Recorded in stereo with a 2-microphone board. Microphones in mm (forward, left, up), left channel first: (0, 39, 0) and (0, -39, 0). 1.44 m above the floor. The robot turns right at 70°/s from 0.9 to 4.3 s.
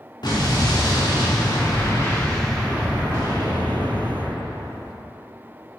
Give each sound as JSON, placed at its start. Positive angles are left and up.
{"t": 0.2, "sound": "an explosion", "azimuth_deg": 70, "distance_m": 2.5}